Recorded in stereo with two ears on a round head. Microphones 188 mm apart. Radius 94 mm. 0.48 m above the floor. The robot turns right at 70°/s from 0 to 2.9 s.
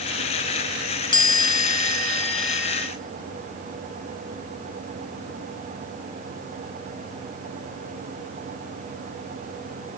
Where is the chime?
20° left (ahead or behind), 1.1 m; by 2.9 s 10° right (ahead or behind), 1.1 m.